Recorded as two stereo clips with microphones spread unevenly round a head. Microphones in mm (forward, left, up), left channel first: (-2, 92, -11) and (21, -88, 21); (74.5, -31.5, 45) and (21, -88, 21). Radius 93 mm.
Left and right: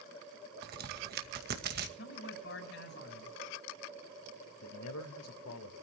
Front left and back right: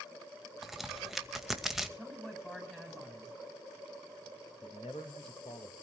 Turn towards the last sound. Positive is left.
turn(degrees=100)